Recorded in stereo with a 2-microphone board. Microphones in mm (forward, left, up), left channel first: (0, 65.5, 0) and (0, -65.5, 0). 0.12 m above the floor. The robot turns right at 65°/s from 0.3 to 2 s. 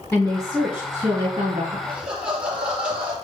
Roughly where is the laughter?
Centre.